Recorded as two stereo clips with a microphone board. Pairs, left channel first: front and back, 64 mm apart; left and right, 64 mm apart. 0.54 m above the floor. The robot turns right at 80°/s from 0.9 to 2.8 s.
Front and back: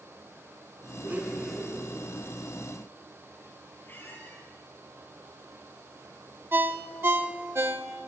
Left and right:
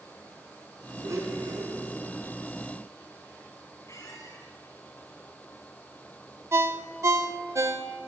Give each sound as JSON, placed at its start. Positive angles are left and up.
{"t": 1.0, "sound": "a blender", "azimuth_deg": -130, "distance_m": 4.0}
{"t": 3.9, "sound": "a squeak", "azimuth_deg": 55, "distance_m": 4.5}
{"t": 6.5, "sound": "a ringtone", "azimuth_deg": -130, "distance_m": 0.9}